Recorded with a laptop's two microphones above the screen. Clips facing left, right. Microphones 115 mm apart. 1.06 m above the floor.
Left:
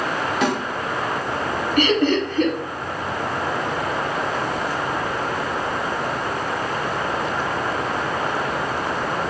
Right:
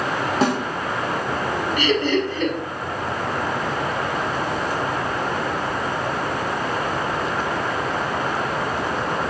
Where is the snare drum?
40° right (ahead or behind), 1.1 m.